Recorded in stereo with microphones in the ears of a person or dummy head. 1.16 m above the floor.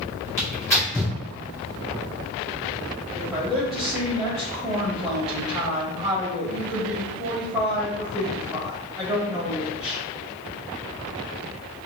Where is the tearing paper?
15° left (ahead or behind), 2.0 m.